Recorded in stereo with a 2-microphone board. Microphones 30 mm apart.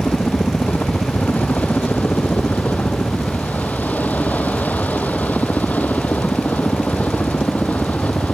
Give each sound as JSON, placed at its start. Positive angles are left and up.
{"t": 0.0, "sound": "a helicopter", "side_deg": 70}